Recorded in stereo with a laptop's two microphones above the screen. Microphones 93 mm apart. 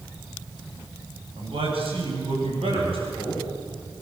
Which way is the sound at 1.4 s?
75° right (ahead or behind).